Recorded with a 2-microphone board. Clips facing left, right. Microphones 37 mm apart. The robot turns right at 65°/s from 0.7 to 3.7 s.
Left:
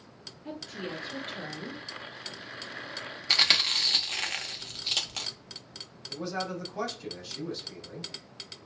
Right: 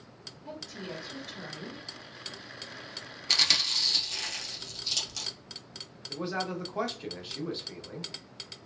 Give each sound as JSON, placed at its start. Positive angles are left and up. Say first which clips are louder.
{"t": 0.5, "sound": "a woman speaking", "louder": "left 3 dB", "azimuth_deg": 80, "distance_m": 1.0}
{"t": 3.3, "sound": "chewing", "louder": "left 2 dB", "side_deg": 20, "distance_m": 0.6}
{"t": 6.1, "sound": "a man speaking", "louder": "right 1 dB", "side_deg": -30, "distance_m": 0.9}